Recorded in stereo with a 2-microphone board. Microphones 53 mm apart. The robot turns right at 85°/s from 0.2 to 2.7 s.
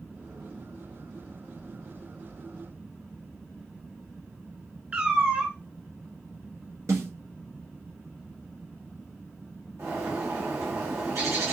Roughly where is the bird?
Right.